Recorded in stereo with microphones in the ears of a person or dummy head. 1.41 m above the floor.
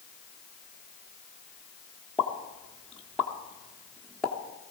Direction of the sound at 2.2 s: Centre (ahead or behind).